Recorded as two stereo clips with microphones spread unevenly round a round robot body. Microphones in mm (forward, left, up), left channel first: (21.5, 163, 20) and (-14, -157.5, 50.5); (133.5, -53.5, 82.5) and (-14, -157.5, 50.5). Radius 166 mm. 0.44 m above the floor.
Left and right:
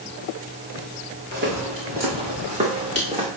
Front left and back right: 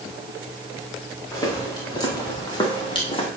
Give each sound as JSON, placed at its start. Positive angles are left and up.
{"t": 1.3, "sound": "footsteps", "azimuth_deg": -35, "distance_m": 4.0}